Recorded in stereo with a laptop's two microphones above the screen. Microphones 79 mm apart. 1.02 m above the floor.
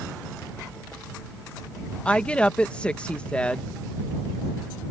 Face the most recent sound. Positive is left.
turn(degrees=15)  # may be behind; listen again after turning